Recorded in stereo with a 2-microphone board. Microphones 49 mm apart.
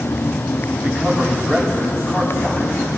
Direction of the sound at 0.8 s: 15° left (ahead or behind).